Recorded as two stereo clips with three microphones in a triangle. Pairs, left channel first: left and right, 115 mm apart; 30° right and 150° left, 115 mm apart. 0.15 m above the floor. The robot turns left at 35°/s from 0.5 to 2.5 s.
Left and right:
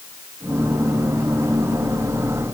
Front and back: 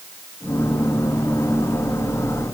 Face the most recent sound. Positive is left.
No sound to turn to.